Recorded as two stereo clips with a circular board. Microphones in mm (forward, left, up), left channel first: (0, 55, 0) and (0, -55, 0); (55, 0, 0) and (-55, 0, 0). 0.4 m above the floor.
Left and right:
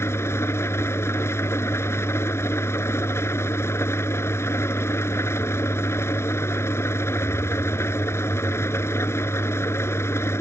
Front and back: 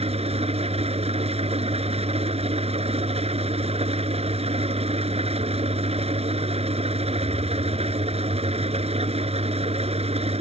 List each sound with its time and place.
0.0 s an engine running: 155° left